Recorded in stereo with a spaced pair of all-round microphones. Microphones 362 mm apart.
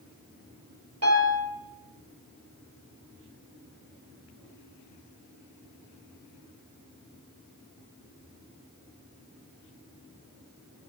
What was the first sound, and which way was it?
A piano, 45° right (ahead or behind).